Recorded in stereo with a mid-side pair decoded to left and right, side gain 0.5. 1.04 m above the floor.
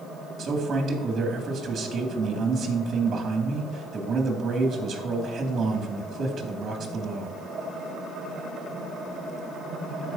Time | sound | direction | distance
0.4 | a man speaking | 40° right | 2 m